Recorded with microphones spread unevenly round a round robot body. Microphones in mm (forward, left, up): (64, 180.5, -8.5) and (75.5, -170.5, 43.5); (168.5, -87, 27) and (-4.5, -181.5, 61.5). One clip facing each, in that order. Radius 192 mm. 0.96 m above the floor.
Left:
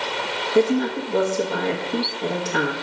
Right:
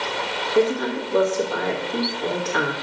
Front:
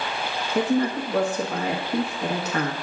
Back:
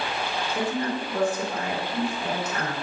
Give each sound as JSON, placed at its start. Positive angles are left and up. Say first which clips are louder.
{"t": 0.6, "sound": "a woman speaking", "louder": "left 2 dB, front 7 dB", "azimuth_deg": 40, "distance_m": 1.3}